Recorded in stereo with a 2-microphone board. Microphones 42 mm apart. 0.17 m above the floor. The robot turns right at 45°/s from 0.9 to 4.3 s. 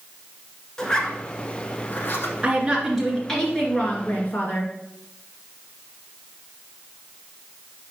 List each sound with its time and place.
0.8 s a zipper: 15° left (ahead or behind), 1.2 m; by 2.3 s 55° left (ahead or behind), 1.2 m
2.4 s a woman speaking: 30° right, 2.5 m; by 4.7 s 55° left, 2.5 m